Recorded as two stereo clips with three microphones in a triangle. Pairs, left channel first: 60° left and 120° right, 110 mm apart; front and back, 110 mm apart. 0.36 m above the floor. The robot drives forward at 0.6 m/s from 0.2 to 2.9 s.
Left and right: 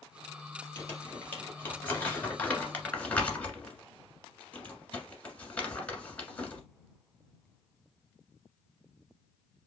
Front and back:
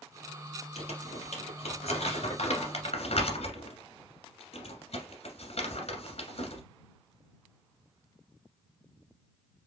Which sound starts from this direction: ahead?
Crumpling, at 0.8 s.